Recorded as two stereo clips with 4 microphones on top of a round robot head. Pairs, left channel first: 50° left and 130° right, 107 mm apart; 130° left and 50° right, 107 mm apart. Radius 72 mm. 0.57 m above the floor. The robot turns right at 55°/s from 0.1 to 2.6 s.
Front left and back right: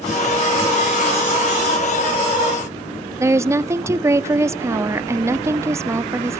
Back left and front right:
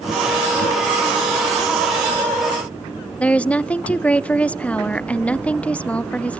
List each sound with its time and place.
3.2 s a woman speaking: 165° right, 0.7 m